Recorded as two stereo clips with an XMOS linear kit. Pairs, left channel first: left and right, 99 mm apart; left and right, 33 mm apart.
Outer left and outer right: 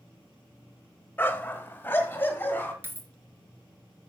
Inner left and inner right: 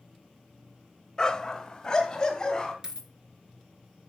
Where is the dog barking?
25° left (ahead or behind), 0.9 m.